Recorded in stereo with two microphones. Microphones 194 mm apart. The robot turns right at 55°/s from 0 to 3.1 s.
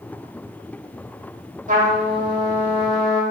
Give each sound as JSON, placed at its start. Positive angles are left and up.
{"t": 1.7, "sound": "a trumpet", "azimuth_deg": -70, "distance_m": 1.2}